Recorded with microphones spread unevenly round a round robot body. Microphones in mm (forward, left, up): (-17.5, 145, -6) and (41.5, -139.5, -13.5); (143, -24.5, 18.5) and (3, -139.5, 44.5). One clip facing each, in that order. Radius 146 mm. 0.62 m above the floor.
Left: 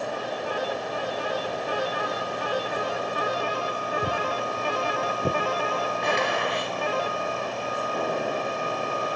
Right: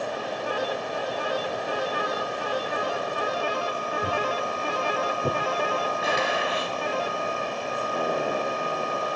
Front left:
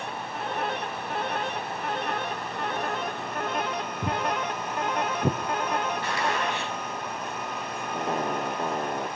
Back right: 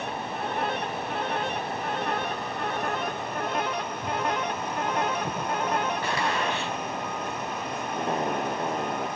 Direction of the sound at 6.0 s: 165° right.